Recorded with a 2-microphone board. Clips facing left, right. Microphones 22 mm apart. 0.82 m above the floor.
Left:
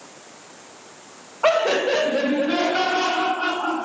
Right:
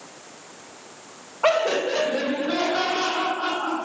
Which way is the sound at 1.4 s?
Centre (ahead or behind).